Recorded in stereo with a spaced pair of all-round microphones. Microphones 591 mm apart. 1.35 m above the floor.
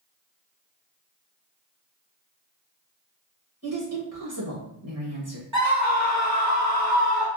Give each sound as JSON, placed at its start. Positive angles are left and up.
{"t": 3.6, "sound": "a woman speaking", "side_deg": -25, "distance_m": 1.1}
{"t": 5.5, "sound": "a scream", "side_deg": -30, "distance_m": 1.4}